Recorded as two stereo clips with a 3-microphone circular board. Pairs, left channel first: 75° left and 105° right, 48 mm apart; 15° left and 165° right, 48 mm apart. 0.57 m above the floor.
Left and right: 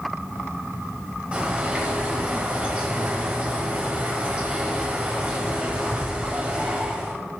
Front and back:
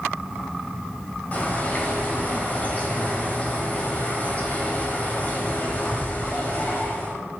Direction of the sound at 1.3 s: 40° right.